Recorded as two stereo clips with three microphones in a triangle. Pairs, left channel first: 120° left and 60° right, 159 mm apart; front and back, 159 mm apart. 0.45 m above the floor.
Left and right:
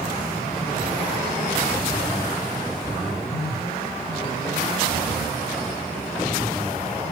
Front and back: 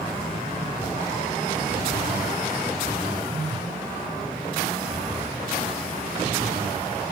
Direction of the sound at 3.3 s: 115° left.